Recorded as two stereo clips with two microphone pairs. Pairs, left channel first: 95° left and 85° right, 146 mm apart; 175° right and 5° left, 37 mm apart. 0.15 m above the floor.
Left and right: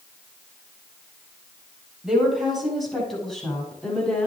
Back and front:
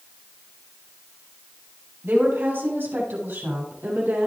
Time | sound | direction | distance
2.0 | a woman speaking | straight ahead | 7 m